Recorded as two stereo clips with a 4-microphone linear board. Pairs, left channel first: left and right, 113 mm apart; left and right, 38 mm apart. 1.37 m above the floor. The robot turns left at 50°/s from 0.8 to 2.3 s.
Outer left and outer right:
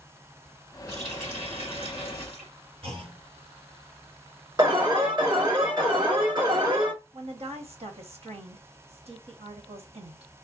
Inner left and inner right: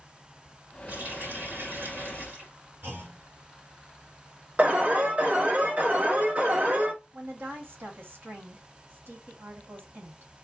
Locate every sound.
0.9 s a running tap: 40° right, 3 m; by 2.5 s 110° right, 3 m
2.8 s a clunk: 55° right (ahead or behind), 1.8 m
4.6 s an alarm: 45° right (ahead or behind), 2.5 m
7.1 s a woman speaking: 65° right (ahead or behind), 1.4 m